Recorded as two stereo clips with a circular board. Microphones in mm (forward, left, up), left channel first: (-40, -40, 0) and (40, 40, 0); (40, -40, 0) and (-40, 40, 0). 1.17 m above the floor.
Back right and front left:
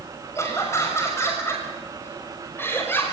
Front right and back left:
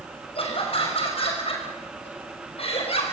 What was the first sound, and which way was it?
Laughter, 70° right.